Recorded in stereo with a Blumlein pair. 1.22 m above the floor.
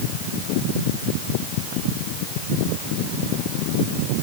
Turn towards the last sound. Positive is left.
No sound to turn to.